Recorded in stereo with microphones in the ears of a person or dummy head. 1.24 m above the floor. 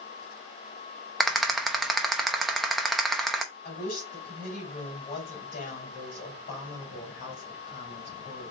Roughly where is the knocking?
I don't hear knocking.